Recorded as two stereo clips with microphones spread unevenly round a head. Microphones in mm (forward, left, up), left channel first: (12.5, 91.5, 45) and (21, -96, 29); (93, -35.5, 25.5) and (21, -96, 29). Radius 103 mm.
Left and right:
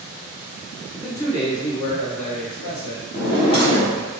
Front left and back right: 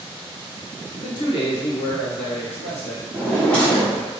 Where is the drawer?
120° left, 0.9 m.